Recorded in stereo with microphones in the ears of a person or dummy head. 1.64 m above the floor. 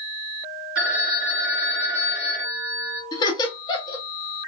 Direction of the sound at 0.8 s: 5° right (ahead or behind).